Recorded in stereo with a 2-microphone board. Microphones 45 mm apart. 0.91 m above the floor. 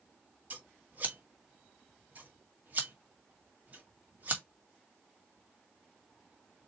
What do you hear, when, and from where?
0.5 s scissors: 40° right (ahead or behind), 1.8 m